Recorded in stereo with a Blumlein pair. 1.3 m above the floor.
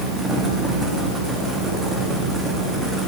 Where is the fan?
10° right, 1.7 m.